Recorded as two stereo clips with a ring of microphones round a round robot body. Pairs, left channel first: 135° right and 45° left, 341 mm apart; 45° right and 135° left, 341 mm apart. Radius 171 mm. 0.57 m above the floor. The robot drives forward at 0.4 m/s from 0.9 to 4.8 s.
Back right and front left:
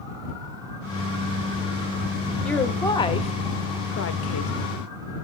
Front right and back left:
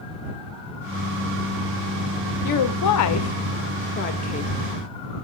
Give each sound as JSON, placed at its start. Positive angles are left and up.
{"t": 2.4, "sound": "a woman speaking", "azimuth_deg": -50, "distance_m": 1.1}